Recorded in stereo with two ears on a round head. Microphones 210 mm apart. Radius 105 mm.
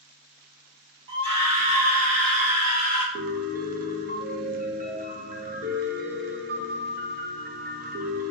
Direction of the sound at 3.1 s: 35° right (ahead or behind).